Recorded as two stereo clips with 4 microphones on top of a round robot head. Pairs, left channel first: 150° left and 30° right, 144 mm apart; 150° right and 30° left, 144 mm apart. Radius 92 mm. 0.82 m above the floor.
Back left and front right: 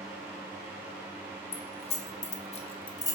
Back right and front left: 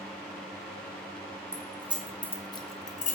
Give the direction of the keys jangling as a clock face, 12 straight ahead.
9 o'clock.